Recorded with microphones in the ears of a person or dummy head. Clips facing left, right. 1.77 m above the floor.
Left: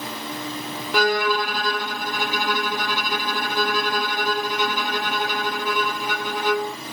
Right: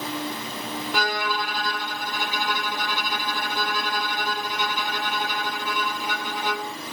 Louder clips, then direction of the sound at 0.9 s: Left 8 dB; 50° left (ahead or behind).